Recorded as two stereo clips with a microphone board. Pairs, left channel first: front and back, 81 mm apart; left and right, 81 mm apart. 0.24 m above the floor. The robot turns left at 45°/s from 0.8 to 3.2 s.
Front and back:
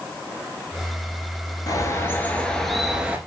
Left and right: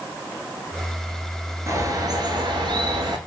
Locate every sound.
1.7 s a bird: 40° right, 0.6 m; by 3.2 s 110° right, 0.6 m